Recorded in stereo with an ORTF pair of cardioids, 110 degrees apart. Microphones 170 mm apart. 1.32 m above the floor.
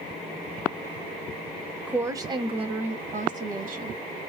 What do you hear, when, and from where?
1.9 s a woman speaking: 10° right, 0.6 m; by 4.0 s 55° right, 1.4 m